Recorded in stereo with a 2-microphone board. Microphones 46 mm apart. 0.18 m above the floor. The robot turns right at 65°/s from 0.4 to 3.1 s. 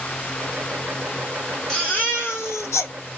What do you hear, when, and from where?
1.7 s a baby crying: 5° left, 2.5 m; by 2.9 s 85° left, 2.5 m